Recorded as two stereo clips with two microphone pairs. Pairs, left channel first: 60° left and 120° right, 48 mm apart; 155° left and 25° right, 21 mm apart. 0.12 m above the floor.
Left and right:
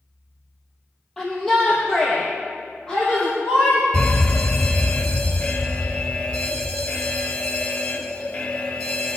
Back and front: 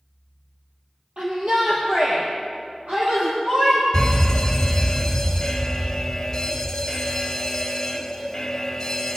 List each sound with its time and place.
1.2 s a shout: 25° right, 3.5 m; by 3.8 s 15° right, 6 m
3.9 s an alarm: 95° left, 1.7 m